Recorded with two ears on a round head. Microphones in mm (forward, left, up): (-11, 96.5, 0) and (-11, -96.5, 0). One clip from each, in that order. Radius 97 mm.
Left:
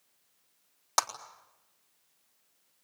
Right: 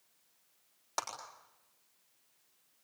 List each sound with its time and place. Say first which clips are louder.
1.0 s a clap: left 9 dB; 50° left (ahead or behind), 4 m